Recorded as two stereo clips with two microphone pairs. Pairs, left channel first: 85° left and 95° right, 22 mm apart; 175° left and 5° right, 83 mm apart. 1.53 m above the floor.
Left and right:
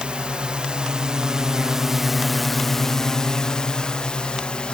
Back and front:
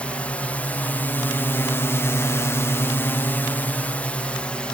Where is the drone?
110° right; by 4.8 s 100° left.